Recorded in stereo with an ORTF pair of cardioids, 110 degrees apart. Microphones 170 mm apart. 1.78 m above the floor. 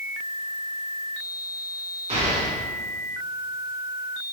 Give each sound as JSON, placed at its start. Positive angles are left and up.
{"t": 2.1, "sound": "an explosion", "azimuth_deg": -40, "distance_m": 3.0}